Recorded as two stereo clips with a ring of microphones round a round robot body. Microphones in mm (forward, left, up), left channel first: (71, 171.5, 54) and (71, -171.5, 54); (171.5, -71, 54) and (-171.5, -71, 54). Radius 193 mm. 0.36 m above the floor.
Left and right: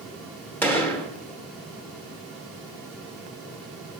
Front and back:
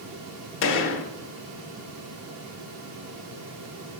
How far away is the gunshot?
About 1.1 m.